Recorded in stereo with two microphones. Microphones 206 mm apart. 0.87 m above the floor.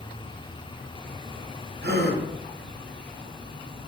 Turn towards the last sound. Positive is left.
turn(degrees=-55)  # may be behind; listen again after turning